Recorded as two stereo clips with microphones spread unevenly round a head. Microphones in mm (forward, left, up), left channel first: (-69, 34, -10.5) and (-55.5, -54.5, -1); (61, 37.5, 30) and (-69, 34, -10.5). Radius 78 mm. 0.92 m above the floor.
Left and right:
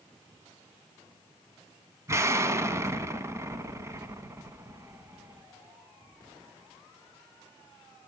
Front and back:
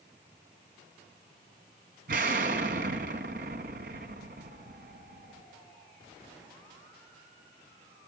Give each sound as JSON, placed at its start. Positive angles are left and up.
{"t": 2.1, "sound": "an explosion", "azimuth_deg": -130, "distance_m": 1.3}